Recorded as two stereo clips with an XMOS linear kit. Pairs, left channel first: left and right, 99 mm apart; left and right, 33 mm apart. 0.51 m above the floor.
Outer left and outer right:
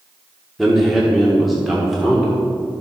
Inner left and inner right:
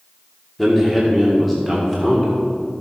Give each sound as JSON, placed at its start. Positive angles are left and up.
{"t": 0.6, "sound": "a man speaking", "side_deg": 0, "distance_m": 1.4}